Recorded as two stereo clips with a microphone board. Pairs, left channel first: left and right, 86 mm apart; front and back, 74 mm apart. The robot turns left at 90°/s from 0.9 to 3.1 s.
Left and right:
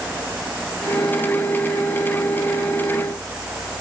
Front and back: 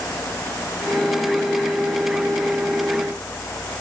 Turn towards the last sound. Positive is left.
No sound to turn to.